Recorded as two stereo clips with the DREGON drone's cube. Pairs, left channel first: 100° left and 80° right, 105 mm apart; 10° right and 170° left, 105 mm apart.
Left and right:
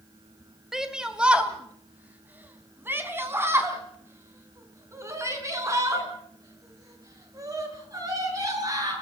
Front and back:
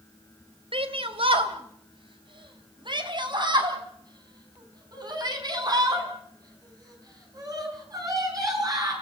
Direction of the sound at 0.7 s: 165° right.